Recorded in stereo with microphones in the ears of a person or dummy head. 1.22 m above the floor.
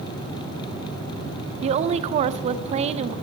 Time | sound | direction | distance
1.6 | a woman speaking | 40° right (ahead or behind) | 0.6 m